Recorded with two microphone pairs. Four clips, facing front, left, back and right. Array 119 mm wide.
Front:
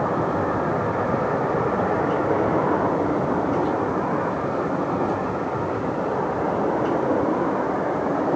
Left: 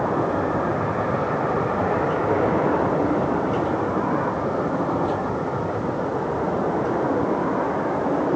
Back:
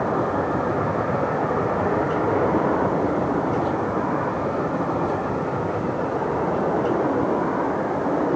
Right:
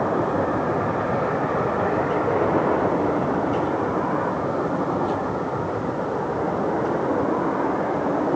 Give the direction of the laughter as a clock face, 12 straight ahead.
No laughter in this recording.